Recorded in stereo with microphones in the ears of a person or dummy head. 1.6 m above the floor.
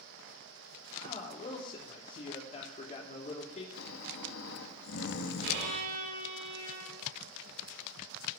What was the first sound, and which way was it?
A man speaking, 35° left (ahead or behind).